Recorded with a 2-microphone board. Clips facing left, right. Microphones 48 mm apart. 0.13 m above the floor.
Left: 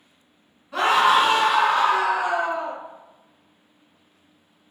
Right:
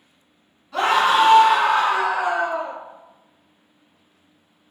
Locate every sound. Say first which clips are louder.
0.7 s a scream: even; 15° left (ahead or behind), 1.4 m; by 2.8 s 30° right (ahead or behind), 1.4 m